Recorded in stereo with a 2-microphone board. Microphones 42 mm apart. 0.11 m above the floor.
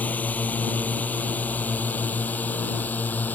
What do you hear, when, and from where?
0.0 s a drone: 40° left (ahead or behind)